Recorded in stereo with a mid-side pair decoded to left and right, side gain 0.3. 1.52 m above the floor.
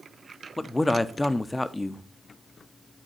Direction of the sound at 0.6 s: 20° left.